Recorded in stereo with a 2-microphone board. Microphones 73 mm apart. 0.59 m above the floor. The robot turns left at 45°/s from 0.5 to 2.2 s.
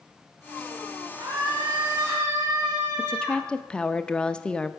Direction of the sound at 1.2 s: 95° right.